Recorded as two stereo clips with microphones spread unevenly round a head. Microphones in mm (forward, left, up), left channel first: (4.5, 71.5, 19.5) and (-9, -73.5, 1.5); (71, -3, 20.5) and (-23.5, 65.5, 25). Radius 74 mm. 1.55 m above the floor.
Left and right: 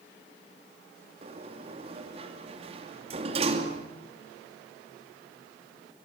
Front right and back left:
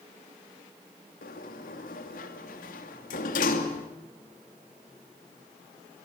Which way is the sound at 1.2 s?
40° right.